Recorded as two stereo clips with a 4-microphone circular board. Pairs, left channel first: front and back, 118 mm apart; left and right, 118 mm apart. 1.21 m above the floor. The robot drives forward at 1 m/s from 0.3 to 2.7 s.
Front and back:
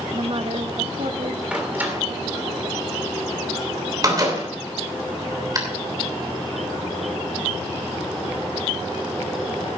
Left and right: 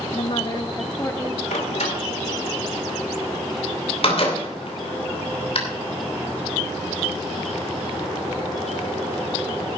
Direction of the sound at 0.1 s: 135° left.